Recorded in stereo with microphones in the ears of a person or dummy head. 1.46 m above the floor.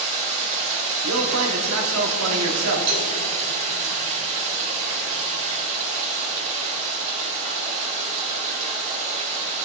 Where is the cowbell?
45° right (ahead or behind), 2.5 m.